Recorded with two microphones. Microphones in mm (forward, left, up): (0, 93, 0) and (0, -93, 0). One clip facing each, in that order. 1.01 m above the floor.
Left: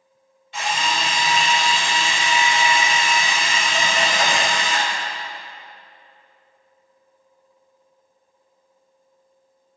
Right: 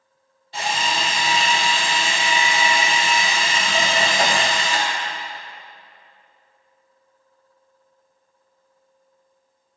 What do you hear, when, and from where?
0.5 s a drill: 40° right (ahead or behind), 2.0 m